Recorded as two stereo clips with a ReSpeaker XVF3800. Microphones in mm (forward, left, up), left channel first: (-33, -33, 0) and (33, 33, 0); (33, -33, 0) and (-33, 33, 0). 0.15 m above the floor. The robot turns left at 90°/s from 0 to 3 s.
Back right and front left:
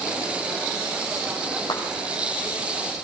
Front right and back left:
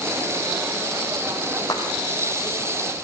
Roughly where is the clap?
Right.